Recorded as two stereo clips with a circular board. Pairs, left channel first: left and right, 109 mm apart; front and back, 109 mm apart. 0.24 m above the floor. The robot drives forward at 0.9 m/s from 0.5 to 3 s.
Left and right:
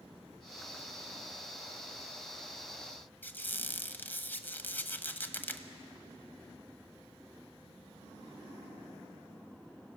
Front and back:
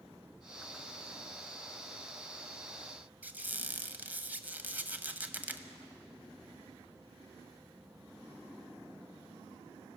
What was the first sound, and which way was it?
A squeak, 130° left.